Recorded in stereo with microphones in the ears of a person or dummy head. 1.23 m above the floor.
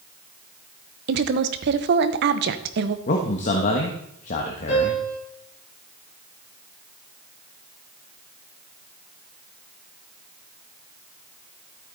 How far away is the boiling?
I don't hear boiling.